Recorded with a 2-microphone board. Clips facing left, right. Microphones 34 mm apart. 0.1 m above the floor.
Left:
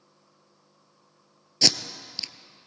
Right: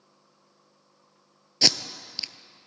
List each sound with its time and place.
1.6 s tape being pulled: 10° right (ahead or behind), 0.6 m